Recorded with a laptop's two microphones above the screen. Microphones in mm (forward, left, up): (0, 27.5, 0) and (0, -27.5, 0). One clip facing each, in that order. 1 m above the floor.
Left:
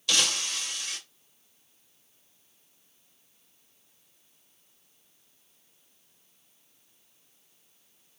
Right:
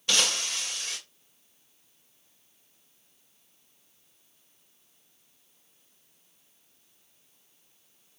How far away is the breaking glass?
About 1.9 m.